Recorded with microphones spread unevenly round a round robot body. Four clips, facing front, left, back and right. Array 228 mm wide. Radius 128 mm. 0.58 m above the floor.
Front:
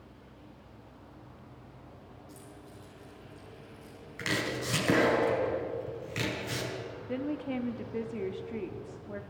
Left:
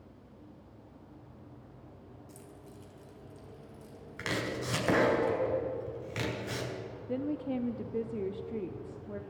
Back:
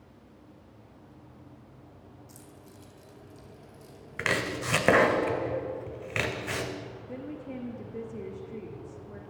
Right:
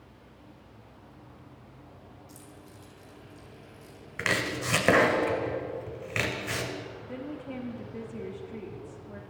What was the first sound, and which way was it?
Keys jangling, 165° left.